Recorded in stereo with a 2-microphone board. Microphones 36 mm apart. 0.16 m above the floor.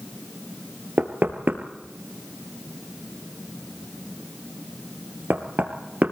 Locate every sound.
1.0 s knocking: 55° right (ahead or behind), 2.5 m